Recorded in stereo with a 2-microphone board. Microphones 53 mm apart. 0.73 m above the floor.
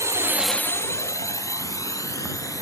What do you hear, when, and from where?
0.0 s a drone: 70° right (ahead or behind); by 2.6 s 80° left